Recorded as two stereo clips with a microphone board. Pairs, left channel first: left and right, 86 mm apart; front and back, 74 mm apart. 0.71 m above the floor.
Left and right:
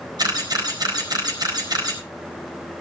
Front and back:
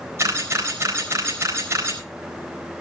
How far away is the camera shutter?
About 4 m.